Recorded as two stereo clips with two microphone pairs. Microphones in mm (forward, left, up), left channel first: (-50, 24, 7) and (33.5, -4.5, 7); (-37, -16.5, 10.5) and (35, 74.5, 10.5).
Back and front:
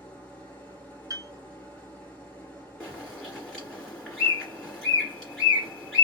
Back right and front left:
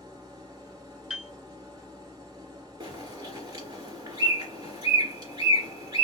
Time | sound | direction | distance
0.0 | an engine running | 90° left | 1.7 m
1.1 | a piano | 25° right | 0.7 m
2.8 | a bird | 80° left | 2 m